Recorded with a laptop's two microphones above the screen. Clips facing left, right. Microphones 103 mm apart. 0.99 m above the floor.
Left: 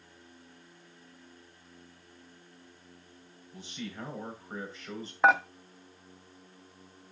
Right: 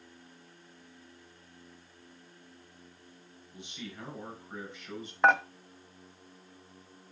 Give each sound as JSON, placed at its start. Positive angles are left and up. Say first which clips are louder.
{"t": 3.5, "sound": "a man speaking", "louder": "left 3 dB", "side_deg": 35, "distance_m": 5.5}
{"t": 5.2, "sound": "dishes clattering", "louder": "left 1 dB", "side_deg": 5, "distance_m": 0.7}